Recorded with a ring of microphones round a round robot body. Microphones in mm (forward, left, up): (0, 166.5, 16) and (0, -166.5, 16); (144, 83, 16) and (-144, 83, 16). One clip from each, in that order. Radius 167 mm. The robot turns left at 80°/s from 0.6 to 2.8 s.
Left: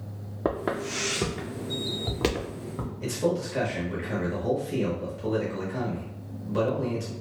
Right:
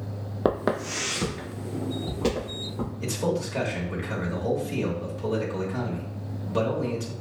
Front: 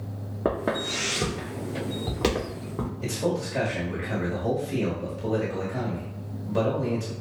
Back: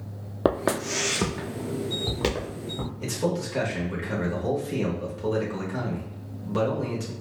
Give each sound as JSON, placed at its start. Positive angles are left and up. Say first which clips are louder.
{"t": 0.5, "sound": "footsteps", "louder": "right 3 dB, back 2 dB", "azimuth_deg": -155, "distance_m": 0.5}
{"t": 3.0, "sound": "a man speaking", "louder": "left 1 dB, even", "azimuth_deg": -160, "distance_m": 1.0}